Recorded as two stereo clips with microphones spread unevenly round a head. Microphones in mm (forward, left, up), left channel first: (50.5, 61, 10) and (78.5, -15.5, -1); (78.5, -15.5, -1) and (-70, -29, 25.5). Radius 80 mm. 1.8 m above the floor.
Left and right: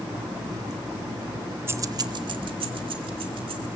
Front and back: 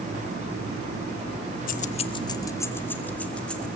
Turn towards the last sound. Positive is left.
turn(degrees=-80)